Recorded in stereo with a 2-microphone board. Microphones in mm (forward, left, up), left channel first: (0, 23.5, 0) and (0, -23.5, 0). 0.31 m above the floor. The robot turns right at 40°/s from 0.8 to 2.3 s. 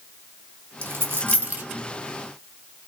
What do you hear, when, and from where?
0.8 s a dropped coin: 55° right (ahead or behind), 0.8 m; by 1.6 s 35° right (ahead or behind), 0.8 m